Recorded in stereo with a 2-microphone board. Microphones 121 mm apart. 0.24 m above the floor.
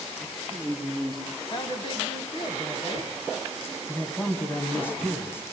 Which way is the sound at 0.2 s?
Centre (ahead or behind).